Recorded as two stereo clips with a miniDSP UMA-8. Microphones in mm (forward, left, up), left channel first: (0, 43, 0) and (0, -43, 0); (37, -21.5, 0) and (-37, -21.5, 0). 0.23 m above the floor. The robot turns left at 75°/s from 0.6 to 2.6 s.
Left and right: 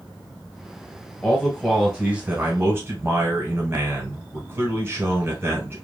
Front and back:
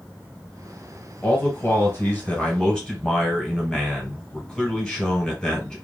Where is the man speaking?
35° left, 1.4 m; by 5.8 s 70° right, 1.4 m.